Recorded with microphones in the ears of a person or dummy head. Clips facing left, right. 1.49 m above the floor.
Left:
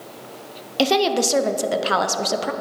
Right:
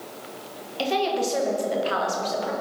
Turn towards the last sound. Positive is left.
turn(degrees=65)  # may be behind; listen again after turning